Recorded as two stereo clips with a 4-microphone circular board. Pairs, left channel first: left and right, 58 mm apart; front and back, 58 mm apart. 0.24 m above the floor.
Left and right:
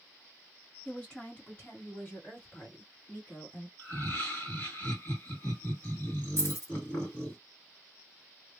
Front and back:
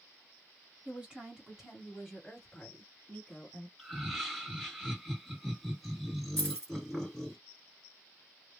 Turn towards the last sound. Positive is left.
turn(degrees=75)